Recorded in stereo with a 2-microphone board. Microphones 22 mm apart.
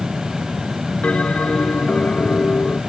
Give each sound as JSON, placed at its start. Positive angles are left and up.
{"t": 1.0, "sound": "a bell", "side_deg": 85}